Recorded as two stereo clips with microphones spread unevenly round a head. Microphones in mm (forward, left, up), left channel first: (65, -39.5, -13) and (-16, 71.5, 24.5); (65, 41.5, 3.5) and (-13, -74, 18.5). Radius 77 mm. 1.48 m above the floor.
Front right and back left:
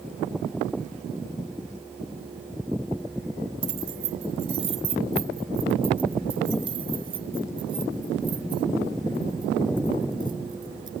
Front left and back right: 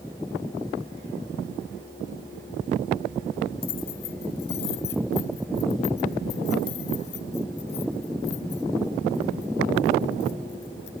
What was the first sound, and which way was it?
Keys jangling, 90° left.